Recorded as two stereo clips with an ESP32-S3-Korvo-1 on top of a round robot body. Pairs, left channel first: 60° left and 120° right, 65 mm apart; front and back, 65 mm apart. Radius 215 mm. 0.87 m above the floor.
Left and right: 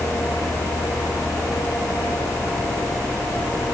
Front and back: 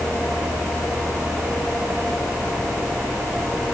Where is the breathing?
No breathing in this recording.